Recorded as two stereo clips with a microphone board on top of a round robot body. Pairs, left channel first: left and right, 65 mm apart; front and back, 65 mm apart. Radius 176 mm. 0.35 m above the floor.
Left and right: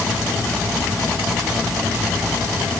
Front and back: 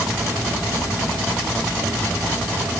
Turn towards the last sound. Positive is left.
No sound to turn to.